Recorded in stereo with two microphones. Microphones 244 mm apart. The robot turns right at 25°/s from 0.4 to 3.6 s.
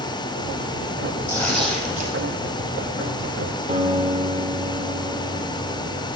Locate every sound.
1.3 s tearing paper: 10° left (ahead or behind), 5.5 m; by 2.1 s 10° right (ahead or behind), 5.5 m
3.7 s a guitar: 35° right (ahead or behind), 4 m